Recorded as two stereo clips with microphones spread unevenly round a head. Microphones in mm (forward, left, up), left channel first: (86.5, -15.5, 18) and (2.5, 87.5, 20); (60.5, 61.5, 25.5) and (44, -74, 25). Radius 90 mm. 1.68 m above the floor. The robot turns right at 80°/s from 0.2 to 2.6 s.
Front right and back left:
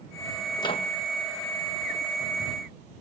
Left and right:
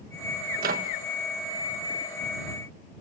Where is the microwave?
120° right; by 0.9 s 95° right.